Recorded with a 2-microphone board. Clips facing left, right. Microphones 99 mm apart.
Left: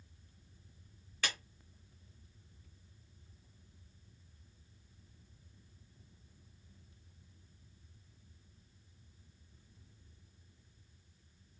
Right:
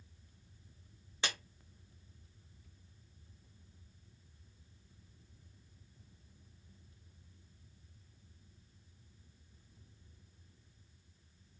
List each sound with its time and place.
1.2 s a clap: 20° right (ahead or behind), 1.3 m